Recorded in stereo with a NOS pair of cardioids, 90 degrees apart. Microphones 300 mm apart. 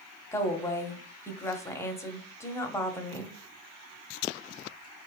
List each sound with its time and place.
0.3 s a woman speaking: 10° left, 0.8 m